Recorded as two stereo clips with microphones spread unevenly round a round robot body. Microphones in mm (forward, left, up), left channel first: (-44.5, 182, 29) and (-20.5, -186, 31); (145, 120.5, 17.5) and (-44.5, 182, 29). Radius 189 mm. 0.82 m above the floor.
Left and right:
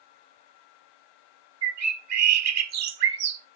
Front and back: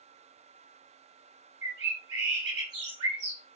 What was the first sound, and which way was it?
A bird, 135° right.